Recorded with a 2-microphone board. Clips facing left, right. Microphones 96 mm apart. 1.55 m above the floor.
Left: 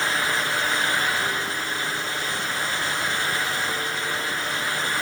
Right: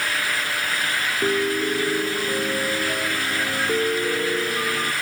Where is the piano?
55° right (ahead or behind).